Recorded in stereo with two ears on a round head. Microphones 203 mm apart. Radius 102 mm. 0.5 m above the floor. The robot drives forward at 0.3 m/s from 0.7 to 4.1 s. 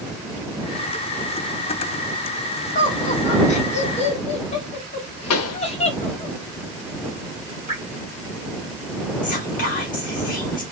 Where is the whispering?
35° left (ahead or behind), 1.1 m.